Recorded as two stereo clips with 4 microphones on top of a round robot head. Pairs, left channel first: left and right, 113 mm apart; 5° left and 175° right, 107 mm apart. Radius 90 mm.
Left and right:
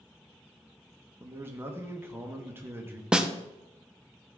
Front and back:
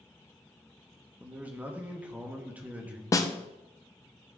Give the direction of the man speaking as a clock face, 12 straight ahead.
4 o'clock.